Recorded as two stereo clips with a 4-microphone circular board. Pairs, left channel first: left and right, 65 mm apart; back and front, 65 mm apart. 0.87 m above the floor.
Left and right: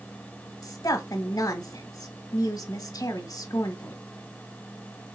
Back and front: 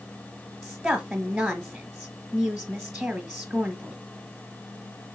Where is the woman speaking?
65° left, 1.1 m.